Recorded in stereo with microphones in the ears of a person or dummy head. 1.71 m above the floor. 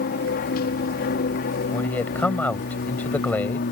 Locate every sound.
0.0 s an aircraft: 50° left (ahead or behind)
1.7 s a man speaking: 5° left (ahead or behind)